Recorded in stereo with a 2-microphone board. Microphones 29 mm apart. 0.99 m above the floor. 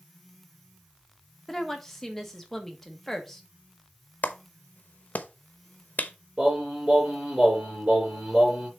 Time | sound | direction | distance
1.5 | a woman speaking | 10° left (ahead or behind) | 1.3 m
4.2 | a clap | 65° left (ahead or behind) | 0.7 m
6.4 | singing | 50° right (ahead or behind) | 3.5 m